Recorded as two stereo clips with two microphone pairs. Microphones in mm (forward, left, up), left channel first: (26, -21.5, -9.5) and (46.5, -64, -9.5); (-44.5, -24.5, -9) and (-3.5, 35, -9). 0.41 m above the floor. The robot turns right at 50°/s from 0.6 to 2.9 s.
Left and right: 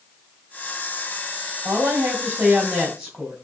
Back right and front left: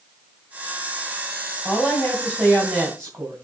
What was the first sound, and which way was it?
A woman speaking, 60° right.